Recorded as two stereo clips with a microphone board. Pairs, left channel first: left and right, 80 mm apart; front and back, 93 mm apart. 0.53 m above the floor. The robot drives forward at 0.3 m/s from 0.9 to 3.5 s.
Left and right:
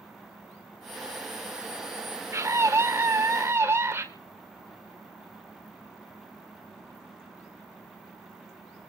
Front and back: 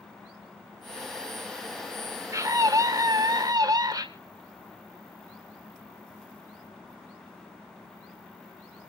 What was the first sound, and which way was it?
A scream, 135° right.